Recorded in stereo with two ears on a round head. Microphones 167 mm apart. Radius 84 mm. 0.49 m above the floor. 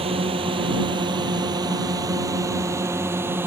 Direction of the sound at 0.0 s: 30° right (ahead or behind).